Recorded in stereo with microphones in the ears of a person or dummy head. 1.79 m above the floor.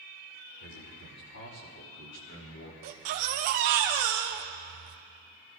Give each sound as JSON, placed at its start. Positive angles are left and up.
{"t": 0.6, "sound": "a man speaking", "side_deg": 65, "distance_m": 4.5}
{"t": 2.8, "sound": "a baby crying", "side_deg": -35, "distance_m": 0.8}